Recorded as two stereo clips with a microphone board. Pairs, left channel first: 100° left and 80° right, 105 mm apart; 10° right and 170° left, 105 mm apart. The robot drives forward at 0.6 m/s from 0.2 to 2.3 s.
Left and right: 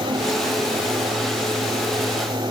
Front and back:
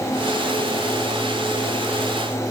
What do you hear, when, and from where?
Only background noise.